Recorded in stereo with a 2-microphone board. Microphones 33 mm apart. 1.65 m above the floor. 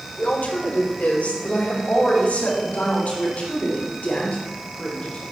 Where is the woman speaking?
75° left (ahead or behind), 1.6 m; by 5.2 s 55° left (ahead or behind), 4 m.